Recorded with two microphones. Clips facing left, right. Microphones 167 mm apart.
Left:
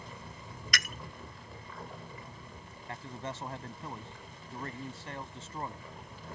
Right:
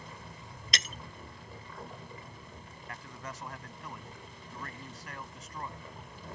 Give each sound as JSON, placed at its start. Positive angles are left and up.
{"t": 0.7, "sound": "breaking glass", "side_deg": -25}
{"t": 2.9, "sound": "a man speaking", "side_deg": 30}